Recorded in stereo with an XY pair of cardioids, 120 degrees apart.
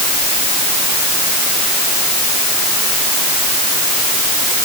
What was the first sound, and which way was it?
Only background noise.